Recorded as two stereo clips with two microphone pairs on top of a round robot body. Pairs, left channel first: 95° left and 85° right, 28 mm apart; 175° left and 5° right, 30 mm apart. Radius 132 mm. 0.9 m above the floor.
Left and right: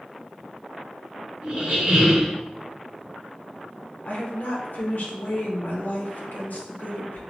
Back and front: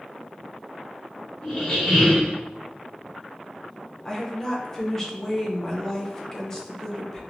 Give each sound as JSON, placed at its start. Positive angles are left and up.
{"t": 1.4, "sound": "a squeak", "azimuth_deg": -125, "distance_m": 0.9}
{"t": 4.0, "sound": "a woman speaking", "azimuth_deg": 100, "distance_m": 0.8}